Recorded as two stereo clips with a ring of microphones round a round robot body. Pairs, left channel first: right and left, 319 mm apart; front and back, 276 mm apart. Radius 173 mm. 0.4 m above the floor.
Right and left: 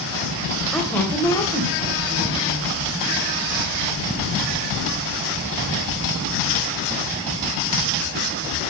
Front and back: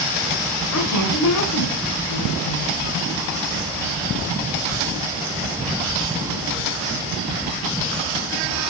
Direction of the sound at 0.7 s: 5° right.